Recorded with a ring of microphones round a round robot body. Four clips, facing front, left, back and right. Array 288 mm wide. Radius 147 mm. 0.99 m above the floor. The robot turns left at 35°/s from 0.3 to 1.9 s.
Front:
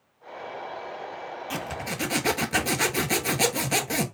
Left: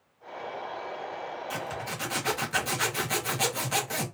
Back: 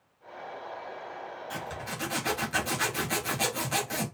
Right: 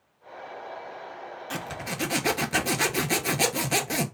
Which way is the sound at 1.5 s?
30° right.